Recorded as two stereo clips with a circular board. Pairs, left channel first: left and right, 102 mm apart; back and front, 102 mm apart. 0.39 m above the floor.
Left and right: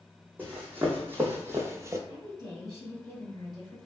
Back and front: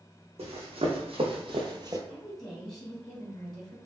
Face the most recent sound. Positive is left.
turn(degrees=-95)